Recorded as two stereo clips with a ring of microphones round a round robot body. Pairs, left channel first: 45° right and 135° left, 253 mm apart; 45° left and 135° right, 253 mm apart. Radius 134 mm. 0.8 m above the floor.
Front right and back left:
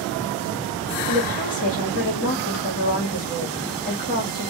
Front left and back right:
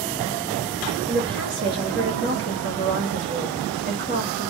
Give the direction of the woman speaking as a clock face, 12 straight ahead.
3 o'clock.